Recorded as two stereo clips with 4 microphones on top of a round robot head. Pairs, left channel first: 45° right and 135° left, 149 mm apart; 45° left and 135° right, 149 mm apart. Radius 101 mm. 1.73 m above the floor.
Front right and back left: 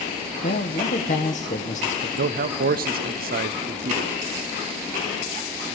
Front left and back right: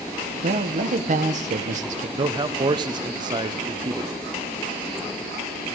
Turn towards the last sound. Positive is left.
turn(degrees=165)